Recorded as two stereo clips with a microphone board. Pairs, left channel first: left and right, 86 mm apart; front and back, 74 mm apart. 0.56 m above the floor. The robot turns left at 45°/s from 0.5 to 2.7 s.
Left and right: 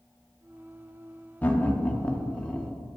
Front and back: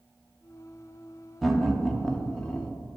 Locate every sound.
1.4 s laughter: 90° left, 0.8 m; by 2.7 s 30° left, 0.8 m